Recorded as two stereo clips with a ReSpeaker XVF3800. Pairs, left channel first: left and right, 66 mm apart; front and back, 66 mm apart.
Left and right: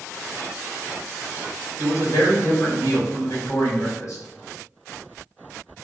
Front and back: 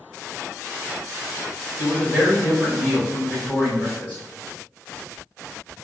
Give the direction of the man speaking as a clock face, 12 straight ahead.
10 o'clock.